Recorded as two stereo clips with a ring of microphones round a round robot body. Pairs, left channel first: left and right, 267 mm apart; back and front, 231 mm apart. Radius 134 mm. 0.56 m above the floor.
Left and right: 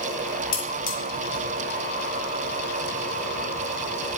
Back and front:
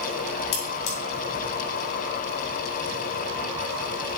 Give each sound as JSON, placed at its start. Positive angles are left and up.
{"t": 0.5, "sound": "cutlery clinking", "azimuth_deg": 150, "distance_m": 3.0}